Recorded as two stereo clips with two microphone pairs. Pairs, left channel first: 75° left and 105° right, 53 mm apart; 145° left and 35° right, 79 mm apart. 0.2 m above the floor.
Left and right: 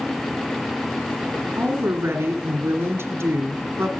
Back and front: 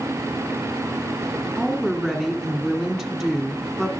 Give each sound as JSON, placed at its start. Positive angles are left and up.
{"t": 1.6, "sound": "a woman speaking", "azimuth_deg": -125, "distance_m": 1.8}